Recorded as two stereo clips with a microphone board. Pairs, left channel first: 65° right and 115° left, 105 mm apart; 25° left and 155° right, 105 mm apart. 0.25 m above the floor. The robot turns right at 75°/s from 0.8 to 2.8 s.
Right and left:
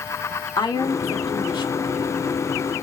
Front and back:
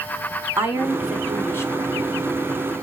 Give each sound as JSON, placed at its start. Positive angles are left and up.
{"t": 0.6, "sound": "a woman speaking", "azimuth_deg": -95, "distance_m": 1.5}